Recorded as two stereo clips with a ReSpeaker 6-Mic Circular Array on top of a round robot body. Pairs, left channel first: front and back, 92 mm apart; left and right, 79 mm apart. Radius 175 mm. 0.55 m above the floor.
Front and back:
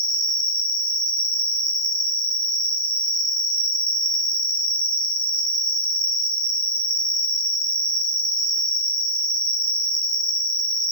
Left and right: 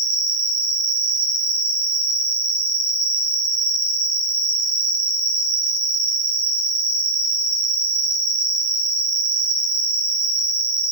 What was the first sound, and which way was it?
An insect, 130° right.